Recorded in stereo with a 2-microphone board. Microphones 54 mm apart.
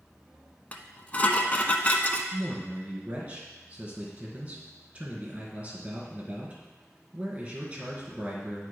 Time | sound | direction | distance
0.7 | dishes clattering | 30° left (ahead or behind) | 0.8 m
2.3 | a man speaking | 30° right (ahead or behind) | 2.5 m